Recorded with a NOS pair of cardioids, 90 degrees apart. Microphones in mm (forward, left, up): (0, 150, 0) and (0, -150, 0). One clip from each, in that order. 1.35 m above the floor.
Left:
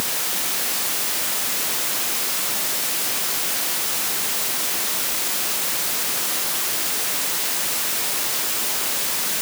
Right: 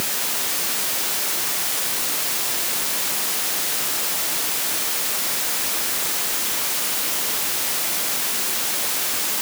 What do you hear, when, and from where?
Only background noise.